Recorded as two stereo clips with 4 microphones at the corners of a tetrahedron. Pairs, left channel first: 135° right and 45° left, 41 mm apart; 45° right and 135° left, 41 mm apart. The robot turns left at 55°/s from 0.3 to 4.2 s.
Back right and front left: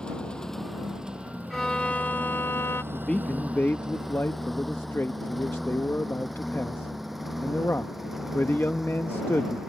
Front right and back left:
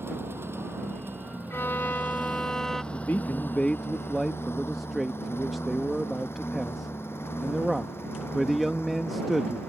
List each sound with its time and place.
0.0 s a lawn mower: 155° left; by 9.7 s 35° right
1.5 s a violin: 55° right; by 2.8 s 125° right
2.9 s a man speaking: 65° right; by 9.7 s 135° right